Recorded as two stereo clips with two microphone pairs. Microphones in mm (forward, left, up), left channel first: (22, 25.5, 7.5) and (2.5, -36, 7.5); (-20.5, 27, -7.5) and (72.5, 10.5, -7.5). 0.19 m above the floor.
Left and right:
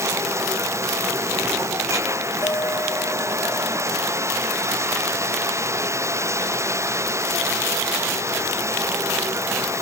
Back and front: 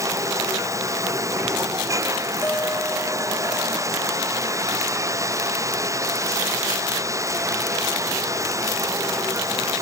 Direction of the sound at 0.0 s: 65° right.